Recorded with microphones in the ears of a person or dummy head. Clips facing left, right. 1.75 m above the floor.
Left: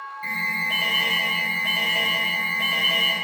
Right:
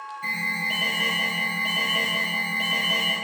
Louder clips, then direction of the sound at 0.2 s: Even; 20° right (ahead or behind).